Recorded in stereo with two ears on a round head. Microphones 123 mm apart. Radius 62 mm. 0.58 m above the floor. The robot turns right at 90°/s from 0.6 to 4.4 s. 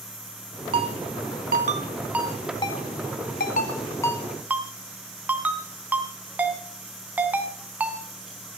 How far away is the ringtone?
About 2.5 m.